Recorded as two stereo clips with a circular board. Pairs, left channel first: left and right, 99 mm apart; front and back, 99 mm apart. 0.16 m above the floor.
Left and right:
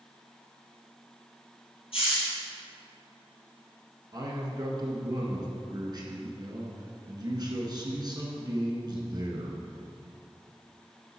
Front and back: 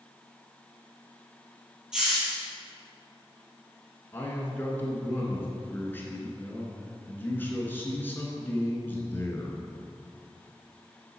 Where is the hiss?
95° left, 2 m.